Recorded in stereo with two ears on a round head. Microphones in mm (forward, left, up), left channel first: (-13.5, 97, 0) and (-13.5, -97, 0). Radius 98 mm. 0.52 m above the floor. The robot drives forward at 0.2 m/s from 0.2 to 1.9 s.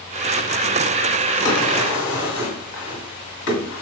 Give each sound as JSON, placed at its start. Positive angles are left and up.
{"t": 1.4, "sound": "a drawer", "side_deg": 80, "distance_m": 2.0}